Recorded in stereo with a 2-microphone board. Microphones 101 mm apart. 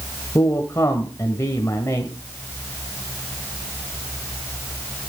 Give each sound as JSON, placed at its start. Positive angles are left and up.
{"t": 0.3, "sound": "a man speaking", "side_deg": 30, "distance_m": 1.3}